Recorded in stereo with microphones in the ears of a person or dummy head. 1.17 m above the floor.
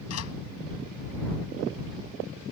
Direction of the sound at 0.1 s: 85° left.